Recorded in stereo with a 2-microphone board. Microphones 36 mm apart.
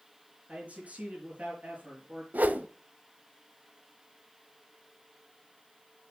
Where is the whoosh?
50° right (ahead or behind), 0.6 m.